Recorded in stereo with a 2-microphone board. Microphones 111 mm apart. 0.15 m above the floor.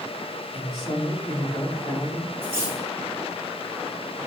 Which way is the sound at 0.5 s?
45° left (ahead or behind).